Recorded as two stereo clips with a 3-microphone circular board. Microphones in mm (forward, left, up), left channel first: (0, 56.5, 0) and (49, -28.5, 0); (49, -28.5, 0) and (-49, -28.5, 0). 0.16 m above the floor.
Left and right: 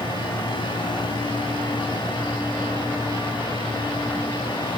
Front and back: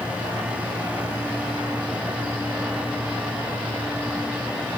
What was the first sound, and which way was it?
Only background noise.